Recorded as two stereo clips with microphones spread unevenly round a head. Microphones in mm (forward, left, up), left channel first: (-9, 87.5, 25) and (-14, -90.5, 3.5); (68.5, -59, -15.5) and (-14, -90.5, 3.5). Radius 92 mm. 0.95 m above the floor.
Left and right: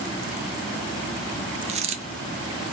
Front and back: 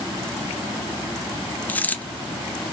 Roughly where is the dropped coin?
Ahead right.